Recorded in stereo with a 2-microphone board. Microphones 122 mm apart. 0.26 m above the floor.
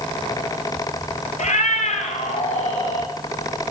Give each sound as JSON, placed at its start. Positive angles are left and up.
{"t": 1.4, "sound": "a cat meowing", "side_deg": 80, "distance_m": 1.3}